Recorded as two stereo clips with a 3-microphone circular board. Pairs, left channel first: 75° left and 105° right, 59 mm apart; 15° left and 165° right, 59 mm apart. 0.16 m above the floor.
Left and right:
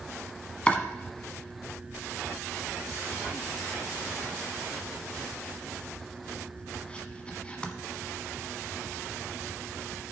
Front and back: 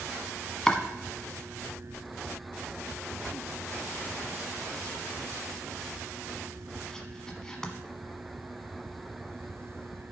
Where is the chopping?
75° left, 1.1 m.